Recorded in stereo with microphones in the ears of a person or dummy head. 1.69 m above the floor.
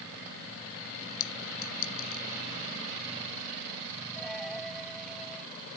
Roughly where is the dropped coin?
Centre.